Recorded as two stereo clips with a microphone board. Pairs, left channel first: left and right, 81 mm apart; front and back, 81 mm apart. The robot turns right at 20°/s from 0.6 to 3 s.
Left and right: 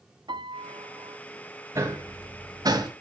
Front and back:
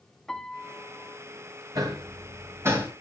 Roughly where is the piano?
Right.